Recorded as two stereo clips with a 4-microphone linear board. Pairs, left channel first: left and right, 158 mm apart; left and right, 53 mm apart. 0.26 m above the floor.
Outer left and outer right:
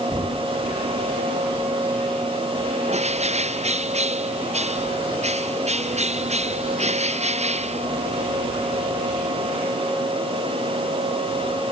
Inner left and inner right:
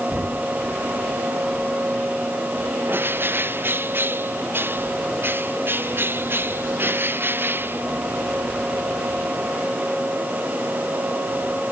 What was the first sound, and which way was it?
Knocking, 20° right (ahead or behind).